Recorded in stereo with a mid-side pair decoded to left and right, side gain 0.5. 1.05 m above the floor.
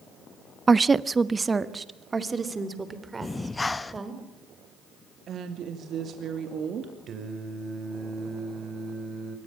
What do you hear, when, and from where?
0.7 s a woman speaking: 25° right, 0.5 m
3.2 s breathing: 20° left, 0.9 m
5.3 s a woman speaking: 55° right, 2.5 m
7.1 s singing: 50° right, 3 m